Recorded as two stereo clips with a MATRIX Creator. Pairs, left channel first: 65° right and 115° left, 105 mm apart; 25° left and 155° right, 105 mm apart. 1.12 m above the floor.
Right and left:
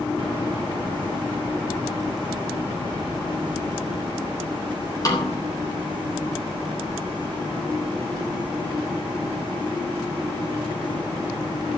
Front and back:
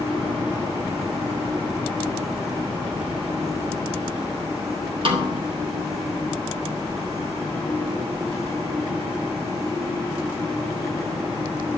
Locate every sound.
5.0 s a snare drum: 125° right, 3.5 m